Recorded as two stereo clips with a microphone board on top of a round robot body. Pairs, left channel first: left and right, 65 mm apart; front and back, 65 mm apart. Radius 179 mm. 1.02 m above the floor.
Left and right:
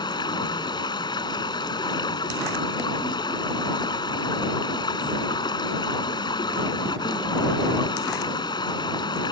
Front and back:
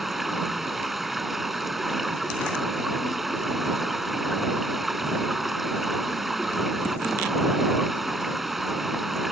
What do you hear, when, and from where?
0.0 s running water: 90° left